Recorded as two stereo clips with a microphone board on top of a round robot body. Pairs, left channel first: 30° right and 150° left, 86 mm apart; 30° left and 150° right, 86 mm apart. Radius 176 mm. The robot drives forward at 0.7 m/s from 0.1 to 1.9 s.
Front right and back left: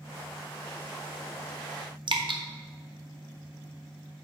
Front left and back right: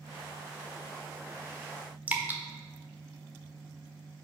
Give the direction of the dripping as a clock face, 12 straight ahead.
7 o'clock.